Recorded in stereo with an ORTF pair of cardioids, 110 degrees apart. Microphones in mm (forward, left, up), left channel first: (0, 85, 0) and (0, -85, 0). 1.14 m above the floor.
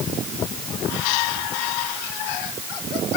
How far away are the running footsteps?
I don't hear running footsteps.